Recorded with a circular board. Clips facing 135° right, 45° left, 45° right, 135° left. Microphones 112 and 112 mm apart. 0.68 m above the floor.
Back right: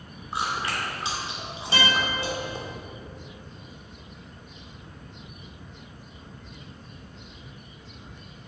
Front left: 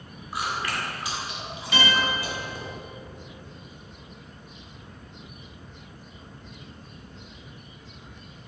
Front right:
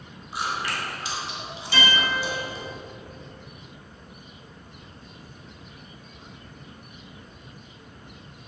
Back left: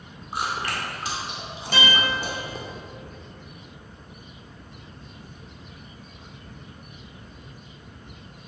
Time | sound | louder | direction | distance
0.3 | chewing | back right 1 dB, back left 1 dB | 165° left | 2.5 m
1.7 | a guitar | front left 1 dB, even | 170° left | 3 m